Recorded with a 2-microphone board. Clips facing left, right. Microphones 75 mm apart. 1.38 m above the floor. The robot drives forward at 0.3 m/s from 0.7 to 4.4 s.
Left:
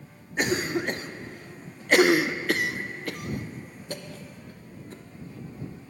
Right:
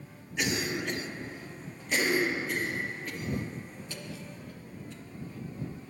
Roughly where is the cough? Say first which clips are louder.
Left 5 dB; left.